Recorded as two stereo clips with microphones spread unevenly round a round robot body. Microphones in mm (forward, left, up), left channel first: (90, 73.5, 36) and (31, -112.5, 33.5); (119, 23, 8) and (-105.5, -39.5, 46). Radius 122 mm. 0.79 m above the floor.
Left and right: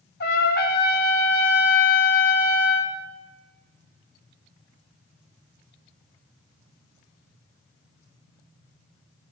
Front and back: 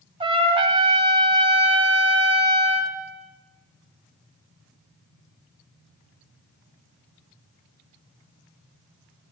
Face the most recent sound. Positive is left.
turn(degrees=125)